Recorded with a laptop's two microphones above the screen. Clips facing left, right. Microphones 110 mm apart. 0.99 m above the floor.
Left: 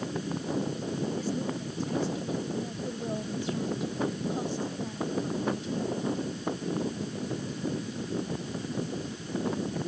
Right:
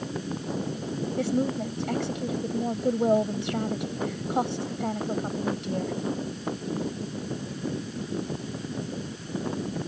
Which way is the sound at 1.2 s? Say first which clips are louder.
Right 6 dB; 80° right.